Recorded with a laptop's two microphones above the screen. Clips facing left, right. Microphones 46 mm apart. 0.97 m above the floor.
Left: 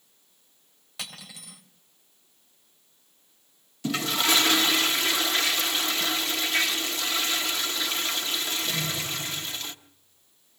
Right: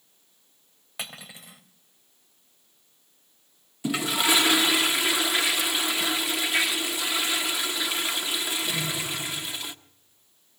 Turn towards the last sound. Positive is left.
turn(degrees=-15)  # may be behind; listen again after turning